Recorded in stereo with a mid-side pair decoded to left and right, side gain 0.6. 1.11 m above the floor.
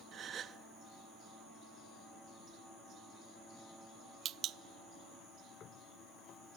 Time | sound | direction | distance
0.1 | a gasp | 45° right | 1.0 m